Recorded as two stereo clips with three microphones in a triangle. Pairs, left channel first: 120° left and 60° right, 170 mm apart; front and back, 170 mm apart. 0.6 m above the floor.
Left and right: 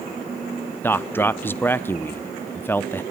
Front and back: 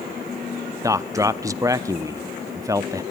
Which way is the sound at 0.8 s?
170° left.